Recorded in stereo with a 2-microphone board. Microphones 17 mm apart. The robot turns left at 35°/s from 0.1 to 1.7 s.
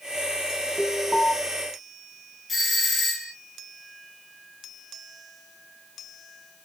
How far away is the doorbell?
About 1.7 m.